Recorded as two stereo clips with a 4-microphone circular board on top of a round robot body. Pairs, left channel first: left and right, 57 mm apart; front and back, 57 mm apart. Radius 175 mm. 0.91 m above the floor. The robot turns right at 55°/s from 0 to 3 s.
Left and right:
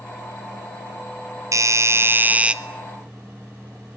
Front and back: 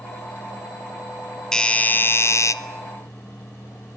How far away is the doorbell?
About 1.7 m.